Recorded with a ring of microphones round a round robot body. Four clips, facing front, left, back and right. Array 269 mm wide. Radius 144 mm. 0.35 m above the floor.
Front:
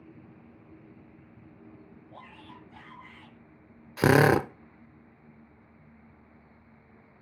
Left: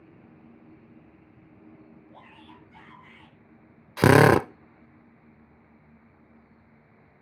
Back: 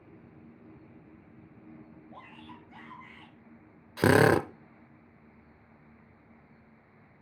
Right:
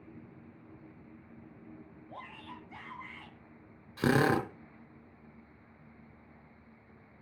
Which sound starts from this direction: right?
A shout, at 2.1 s.